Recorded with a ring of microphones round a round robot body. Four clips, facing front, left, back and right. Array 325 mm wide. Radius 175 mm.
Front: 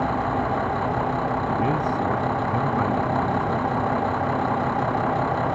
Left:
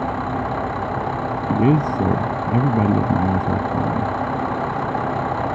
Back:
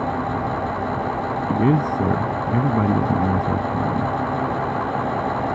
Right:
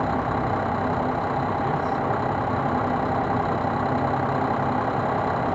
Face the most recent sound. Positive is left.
turn(degrees=125)